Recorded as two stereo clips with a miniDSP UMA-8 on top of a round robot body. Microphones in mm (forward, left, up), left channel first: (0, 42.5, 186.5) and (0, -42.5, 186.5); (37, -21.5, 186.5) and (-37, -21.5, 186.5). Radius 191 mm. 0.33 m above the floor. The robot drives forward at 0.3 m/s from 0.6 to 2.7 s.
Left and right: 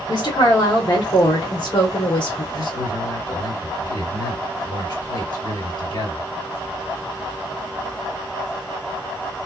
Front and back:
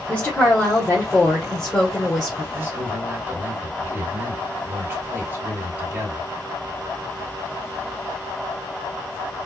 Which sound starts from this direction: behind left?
A man speaking, at 2.5 s.